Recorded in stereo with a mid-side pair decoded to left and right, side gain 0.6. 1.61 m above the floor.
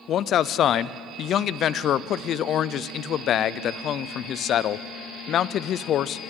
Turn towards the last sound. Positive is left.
turn(degrees=50)